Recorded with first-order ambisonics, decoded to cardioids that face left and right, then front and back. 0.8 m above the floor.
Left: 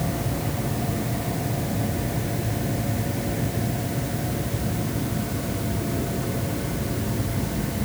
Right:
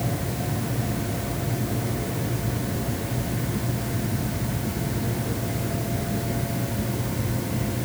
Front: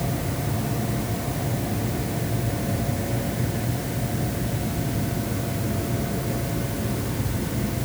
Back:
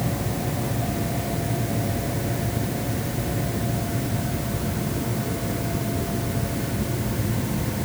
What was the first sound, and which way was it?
Only background noise.